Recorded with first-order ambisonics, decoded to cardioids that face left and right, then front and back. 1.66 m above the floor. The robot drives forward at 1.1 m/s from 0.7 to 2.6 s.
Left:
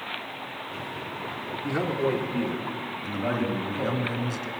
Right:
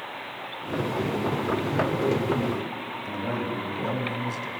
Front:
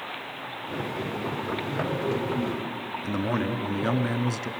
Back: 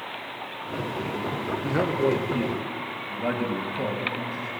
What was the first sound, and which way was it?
A man speaking, 165° left.